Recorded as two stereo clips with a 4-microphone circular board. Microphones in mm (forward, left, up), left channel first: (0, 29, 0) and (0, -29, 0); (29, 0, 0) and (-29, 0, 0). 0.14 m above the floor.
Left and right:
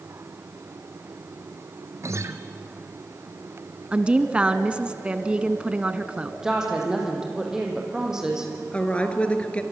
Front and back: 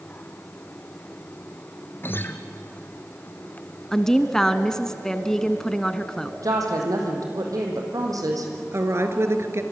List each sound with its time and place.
2.0 s a guitar: 55° right, 1.3 m
3.9 s a woman speaking: 65° right, 1.1 m
6.4 s a woman speaking: 170° right, 5 m
8.7 s a woman speaking: 155° left, 2 m